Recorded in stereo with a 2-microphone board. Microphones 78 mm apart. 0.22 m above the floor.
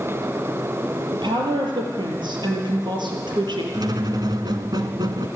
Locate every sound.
1.1 s a woman speaking: 75° right (ahead or behind), 5.5 m
3.7 s a squeak: 60° right (ahead or behind), 1.7 m